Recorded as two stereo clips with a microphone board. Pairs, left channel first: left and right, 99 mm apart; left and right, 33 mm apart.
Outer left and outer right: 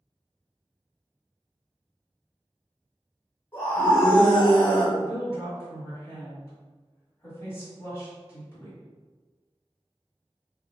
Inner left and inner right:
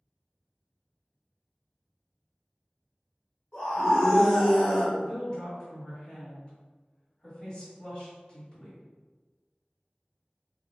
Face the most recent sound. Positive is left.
turn(degrees=40)  # may be behind; listen again after turning